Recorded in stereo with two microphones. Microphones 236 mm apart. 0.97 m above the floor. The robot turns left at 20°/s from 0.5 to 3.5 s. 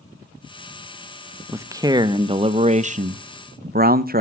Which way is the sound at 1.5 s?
15° right.